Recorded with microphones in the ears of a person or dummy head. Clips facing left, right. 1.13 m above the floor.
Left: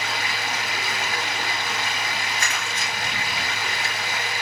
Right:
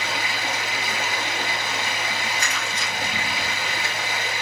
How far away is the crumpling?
About 4 m.